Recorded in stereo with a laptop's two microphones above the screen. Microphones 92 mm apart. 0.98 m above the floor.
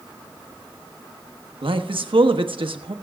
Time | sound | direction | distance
1.6 | a man speaking | 70° right (ahead or behind) | 1.1 m